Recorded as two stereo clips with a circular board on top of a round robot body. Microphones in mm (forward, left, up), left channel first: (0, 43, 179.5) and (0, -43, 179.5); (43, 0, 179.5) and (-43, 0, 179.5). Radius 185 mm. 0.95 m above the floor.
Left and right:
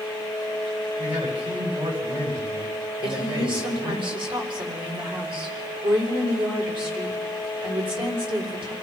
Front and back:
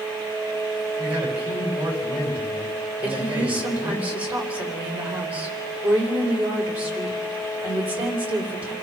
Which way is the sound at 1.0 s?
115° right.